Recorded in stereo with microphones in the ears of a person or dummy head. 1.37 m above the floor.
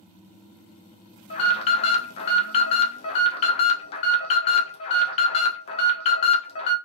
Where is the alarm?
35° left (ahead or behind), 0.8 m.